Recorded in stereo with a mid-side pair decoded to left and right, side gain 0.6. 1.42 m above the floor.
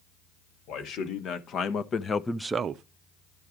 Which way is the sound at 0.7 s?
60° left.